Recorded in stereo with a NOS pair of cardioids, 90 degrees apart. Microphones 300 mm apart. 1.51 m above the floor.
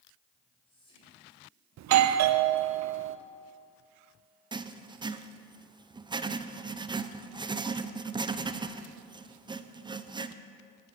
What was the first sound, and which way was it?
Whispering, 20° left.